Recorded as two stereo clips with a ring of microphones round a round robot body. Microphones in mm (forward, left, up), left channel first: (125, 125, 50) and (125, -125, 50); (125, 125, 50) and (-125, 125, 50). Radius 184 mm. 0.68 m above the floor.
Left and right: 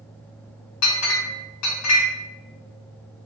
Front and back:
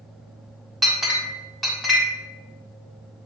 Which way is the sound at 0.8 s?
90° left.